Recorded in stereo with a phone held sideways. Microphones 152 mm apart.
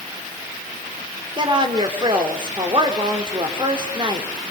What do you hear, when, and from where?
1.4 s a woman speaking: 30° right (ahead or behind), 3 m